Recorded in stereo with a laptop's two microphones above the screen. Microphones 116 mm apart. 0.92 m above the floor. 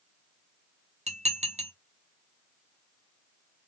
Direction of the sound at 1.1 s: 75° right (ahead or behind).